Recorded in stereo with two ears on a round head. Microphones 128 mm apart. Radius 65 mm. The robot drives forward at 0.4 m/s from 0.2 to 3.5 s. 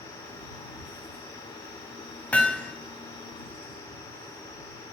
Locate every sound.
2.3 s hammering: 10° left (ahead or behind), 1.9 m